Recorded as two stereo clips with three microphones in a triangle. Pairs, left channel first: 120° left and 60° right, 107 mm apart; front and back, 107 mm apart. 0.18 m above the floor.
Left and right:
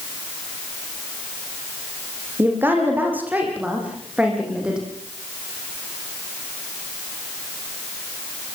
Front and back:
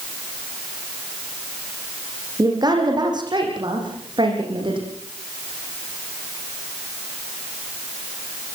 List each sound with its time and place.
2.4 s a woman speaking: 130° right, 9 m; by 4.8 s 145° right, 10 m